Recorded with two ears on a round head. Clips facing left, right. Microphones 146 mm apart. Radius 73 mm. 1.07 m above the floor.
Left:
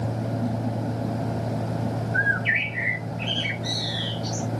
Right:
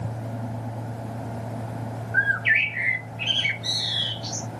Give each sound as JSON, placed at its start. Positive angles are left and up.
{"t": 2.1, "sound": "a bird", "side_deg": -65, "distance_m": 1.1}